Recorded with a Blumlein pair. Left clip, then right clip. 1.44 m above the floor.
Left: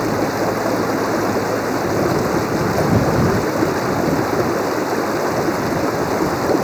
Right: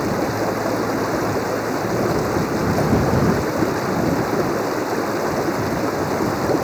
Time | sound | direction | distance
0.0 | running water | 5° left | ?